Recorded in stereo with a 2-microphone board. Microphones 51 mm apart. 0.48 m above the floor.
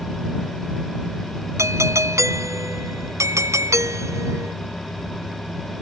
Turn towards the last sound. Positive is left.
turn(degrees=-75)  # may be behind; listen again after turning